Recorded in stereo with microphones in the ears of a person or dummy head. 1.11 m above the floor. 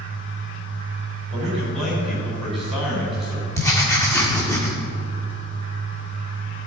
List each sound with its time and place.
0.0 s a fan: 65° left (ahead or behind), 3 m
1.3 s a man speaking: centre (ahead or behind), 3.5 m
3.5 s writing: 15° left (ahead or behind), 1.7 m